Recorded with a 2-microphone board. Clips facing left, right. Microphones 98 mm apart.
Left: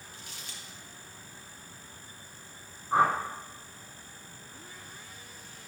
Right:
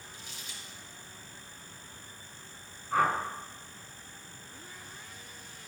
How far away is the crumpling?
About 3.5 m.